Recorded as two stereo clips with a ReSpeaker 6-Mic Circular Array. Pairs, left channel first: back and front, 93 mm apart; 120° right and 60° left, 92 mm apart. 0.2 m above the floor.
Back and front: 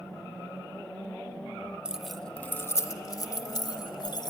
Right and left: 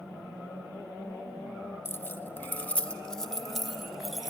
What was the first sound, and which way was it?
Keys jangling, 75° right.